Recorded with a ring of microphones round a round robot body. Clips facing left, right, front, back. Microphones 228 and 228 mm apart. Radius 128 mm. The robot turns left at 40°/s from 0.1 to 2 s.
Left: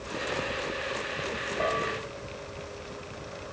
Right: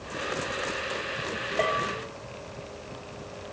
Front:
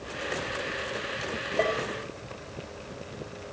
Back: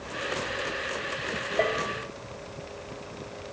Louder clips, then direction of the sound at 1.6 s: Right 1 dB, even; 85° right.